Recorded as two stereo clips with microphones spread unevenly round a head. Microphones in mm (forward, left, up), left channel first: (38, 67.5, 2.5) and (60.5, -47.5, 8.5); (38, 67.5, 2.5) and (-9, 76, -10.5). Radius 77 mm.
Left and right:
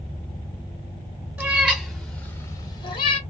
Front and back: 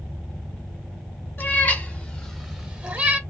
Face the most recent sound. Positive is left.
turn(degrees=115)